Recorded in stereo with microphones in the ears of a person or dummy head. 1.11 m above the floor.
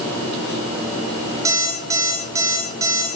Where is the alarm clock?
15° right (ahead or behind), 4.5 m.